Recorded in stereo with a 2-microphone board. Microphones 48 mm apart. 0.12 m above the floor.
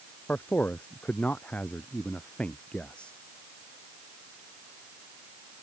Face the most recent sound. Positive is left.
turn(degrees=25)  # may be behind; listen again after turning